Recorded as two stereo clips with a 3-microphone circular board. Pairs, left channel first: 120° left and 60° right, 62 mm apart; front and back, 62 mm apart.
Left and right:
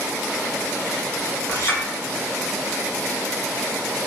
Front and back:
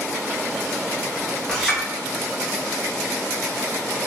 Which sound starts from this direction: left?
A clink, at 1.5 s.